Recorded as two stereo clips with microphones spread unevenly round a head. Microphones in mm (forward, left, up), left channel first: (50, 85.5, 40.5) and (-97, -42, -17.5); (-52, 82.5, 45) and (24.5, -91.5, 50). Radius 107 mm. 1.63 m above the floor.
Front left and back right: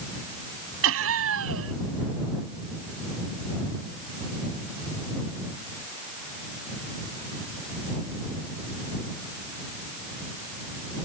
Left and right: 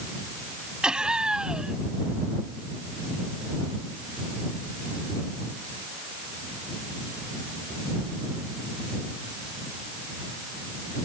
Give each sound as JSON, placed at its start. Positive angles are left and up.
{"t": 0.8, "sound": "laughter", "azimuth_deg": -150}